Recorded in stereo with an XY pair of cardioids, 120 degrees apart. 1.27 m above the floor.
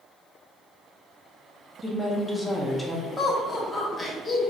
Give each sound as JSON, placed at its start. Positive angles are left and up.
{"t": 1.8, "sound": "a woman speaking", "azimuth_deg": 10, "distance_m": 0.8}
{"t": 3.2, "sound": "laughter", "azimuth_deg": 20, "distance_m": 1.2}